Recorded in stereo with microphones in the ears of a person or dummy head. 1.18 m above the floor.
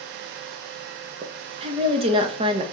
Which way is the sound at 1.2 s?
30° right (ahead or behind).